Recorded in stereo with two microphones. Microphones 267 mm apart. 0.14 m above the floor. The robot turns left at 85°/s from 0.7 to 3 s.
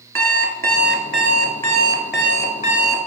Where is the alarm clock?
55° right, 0.9 m; by 3.1 s 110° left, 0.9 m.